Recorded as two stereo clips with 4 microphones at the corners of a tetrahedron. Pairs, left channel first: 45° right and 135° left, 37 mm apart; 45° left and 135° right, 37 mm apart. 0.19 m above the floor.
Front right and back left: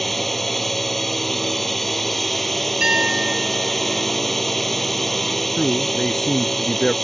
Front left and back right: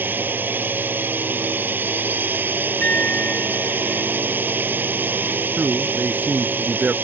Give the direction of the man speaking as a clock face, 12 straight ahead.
4 o'clock.